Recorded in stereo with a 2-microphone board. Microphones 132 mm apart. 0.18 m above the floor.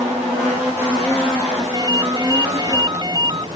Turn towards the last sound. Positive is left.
turn(degrees=-30)  # may be behind; listen again after turning